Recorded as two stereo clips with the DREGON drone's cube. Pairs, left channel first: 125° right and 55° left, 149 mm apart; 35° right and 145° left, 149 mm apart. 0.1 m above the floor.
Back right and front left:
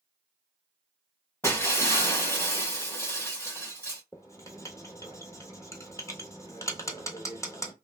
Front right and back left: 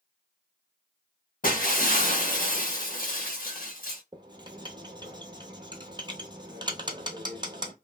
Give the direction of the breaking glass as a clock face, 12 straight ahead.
2 o'clock.